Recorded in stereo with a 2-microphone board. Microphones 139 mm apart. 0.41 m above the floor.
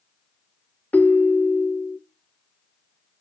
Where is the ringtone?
10° left (ahead or behind), 0.6 m.